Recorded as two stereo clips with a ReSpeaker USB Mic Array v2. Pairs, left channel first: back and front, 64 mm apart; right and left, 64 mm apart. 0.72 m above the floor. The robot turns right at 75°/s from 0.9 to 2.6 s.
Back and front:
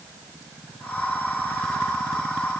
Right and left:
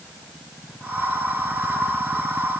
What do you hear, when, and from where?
Only background noise.